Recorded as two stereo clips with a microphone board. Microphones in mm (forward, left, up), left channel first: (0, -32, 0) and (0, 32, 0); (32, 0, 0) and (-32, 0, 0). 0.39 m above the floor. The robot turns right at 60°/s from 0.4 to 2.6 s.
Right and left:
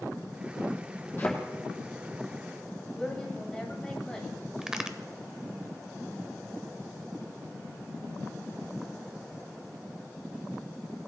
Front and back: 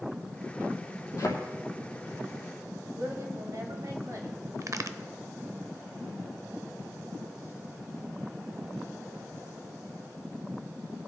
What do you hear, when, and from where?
1.2 s a thud: 30° right, 2.5 m; by 1.4 s 20° right, 2.5 m
3.0 s a woman speaking: 170° right, 2 m
4.6 s a crack: 165° left, 0.6 m